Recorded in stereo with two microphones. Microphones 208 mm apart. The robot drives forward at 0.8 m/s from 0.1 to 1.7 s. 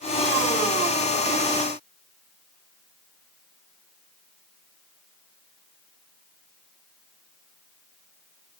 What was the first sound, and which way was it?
Only background noise.